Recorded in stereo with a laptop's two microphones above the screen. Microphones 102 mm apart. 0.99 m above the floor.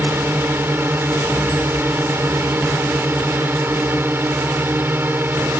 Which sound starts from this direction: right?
A drone, at 0.0 s.